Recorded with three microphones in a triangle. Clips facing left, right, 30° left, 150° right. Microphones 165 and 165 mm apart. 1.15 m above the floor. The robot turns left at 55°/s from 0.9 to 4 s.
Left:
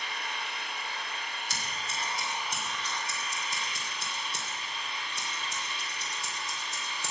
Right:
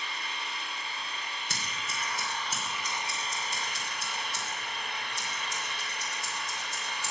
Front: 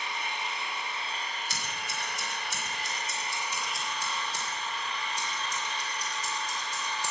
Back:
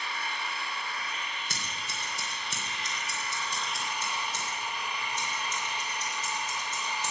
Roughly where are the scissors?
Behind right.